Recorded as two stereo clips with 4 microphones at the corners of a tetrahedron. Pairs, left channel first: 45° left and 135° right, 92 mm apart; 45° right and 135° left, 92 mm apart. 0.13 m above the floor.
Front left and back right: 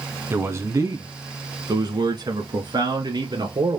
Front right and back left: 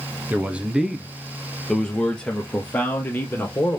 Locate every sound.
0.3 s a man speaking: 170° right, 1.2 m; by 3.8 s 110° right, 2.5 m